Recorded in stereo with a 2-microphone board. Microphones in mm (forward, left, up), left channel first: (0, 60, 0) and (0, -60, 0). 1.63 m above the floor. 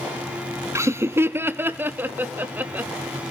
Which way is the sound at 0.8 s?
20° right (ahead or behind).